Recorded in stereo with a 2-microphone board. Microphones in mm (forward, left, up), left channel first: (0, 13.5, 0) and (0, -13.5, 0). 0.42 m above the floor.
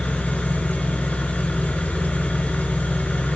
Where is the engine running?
80° left, 6 m.